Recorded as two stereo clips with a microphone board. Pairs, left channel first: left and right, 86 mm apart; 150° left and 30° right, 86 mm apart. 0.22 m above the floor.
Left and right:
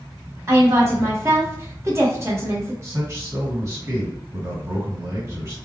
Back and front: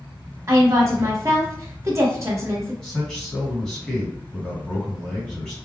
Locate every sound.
0.5 s a woman speaking: 60° right, 1.2 m
2.8 s a man speaking: 130° right, 1.7 m